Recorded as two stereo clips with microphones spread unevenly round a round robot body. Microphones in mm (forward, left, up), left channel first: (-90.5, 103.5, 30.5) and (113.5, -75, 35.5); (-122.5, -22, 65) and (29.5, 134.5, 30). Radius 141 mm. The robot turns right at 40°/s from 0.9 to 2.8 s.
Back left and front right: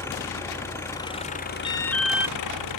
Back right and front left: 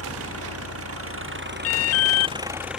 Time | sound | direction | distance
0.0 | an engine running | 60° left | ?
1.6 | an alarm | 150° right | ?